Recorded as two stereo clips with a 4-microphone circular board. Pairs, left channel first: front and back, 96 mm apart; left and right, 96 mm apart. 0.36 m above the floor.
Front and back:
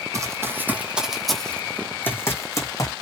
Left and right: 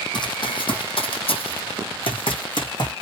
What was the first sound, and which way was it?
Running footsteps, 125° left.